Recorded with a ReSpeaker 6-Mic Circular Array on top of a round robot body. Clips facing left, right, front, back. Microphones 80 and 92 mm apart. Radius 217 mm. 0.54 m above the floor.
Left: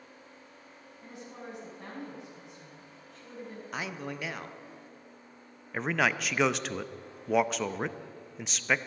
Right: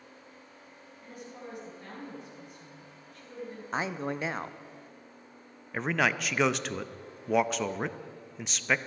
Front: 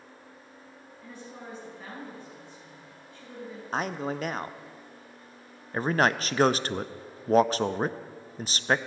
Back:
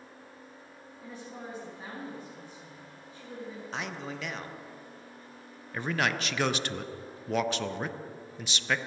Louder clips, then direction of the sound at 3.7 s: Right 5 dB, front 9 dB; 35° right.